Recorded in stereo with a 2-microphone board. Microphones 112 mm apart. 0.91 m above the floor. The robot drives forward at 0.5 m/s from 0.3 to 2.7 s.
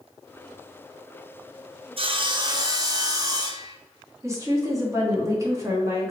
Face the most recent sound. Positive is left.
turn(degrees=-25)  # may be behind; listen again after turning